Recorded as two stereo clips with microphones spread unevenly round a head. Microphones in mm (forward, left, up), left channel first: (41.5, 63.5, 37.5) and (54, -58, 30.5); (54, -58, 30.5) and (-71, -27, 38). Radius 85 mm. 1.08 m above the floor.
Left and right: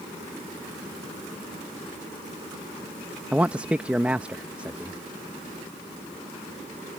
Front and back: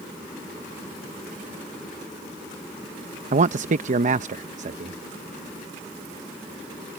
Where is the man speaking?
165° right.